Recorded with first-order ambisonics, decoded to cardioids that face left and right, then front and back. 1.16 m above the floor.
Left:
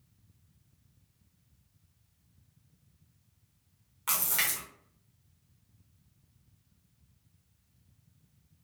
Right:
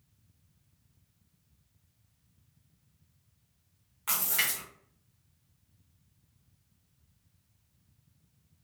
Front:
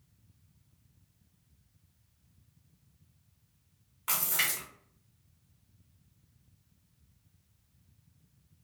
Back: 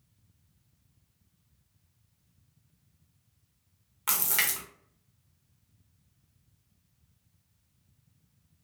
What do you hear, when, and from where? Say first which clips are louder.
4.1 s a splash: even, back 2 dB; 175° left, 0.9 m